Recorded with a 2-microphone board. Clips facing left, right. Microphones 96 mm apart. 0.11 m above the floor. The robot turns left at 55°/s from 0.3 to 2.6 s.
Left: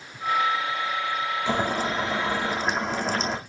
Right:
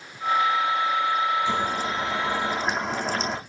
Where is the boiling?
65° left, 3.5 m; by 3.4 s 5° left, 3.5 m.